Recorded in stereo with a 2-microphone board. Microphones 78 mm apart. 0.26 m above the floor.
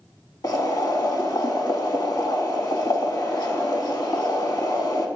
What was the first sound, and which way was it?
Boiling, 60° left (ahead or behind).